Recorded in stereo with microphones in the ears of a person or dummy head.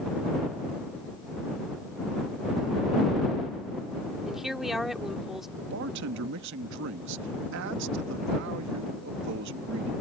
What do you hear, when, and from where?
4.2 s a woman speaking: centre (ahead or behind)
5.6 s a man speaking: 65° right (ahead or behind)